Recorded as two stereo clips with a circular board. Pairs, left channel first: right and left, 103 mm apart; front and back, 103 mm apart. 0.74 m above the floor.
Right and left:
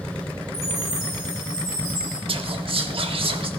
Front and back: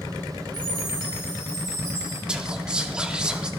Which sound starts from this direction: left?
Whispering, at 2.3 s.